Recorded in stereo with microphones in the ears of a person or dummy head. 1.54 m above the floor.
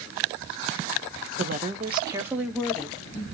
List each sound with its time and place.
1.4 s a woman speaking: 50° right (ahead or behind), 0.9 m; by 3.2 s 25° left (ahead or behind), 1.1 m